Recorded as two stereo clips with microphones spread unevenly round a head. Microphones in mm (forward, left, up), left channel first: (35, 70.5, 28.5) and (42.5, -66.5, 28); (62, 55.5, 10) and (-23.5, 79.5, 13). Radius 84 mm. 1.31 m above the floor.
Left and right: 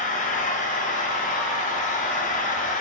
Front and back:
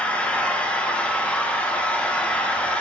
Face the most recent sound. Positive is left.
turn(degrees=60)